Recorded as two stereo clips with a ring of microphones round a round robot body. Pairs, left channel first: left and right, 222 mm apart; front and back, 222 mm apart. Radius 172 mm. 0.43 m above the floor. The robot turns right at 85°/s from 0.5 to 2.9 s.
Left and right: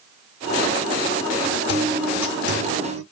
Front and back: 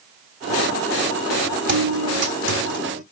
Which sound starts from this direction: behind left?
A guitar, at 1.7 s.